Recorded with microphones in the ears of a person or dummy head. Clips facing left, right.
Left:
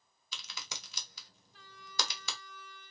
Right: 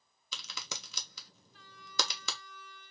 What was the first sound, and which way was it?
A crack, 70° right (ahead or behind).